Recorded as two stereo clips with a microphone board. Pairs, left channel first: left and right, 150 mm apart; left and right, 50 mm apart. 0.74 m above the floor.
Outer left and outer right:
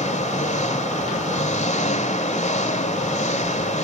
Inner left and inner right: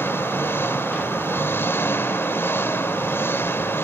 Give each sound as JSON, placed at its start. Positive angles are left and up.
{"t": 0.0, "sound": "an engine running", "side_deg": 50, "distance_m": 2.5}